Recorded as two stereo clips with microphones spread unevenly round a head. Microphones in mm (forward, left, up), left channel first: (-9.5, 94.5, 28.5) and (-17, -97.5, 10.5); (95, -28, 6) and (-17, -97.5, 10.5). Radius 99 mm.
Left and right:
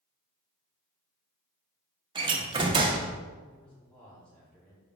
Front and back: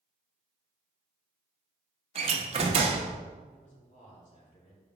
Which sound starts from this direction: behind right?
A door slam, at 2.1 s.